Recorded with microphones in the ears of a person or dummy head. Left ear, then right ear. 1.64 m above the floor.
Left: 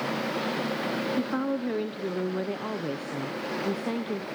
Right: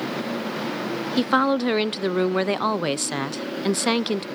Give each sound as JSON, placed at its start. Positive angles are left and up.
{"t": 1.2, "sound": "a woman speaking", "side_deg": -50, "distance_m": 0.6}